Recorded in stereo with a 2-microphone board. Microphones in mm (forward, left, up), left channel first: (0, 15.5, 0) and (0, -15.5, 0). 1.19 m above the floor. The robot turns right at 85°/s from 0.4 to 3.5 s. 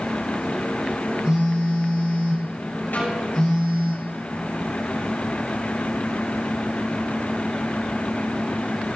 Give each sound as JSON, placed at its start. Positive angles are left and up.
{"t": 1.2, "sound": "a phone buzzing", "azimuth_deg": -155, "distance_m": 4.0}
{"t": 2.9, "sound": "a snare drum", "side_deg": 75, "distance_m": 6.5}